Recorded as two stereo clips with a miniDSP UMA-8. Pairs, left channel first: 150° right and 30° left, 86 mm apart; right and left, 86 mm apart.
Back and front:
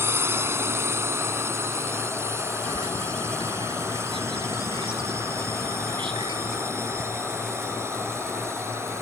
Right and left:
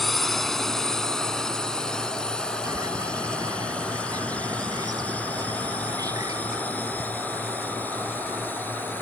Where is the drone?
5° right; by 9.0 s 25° right.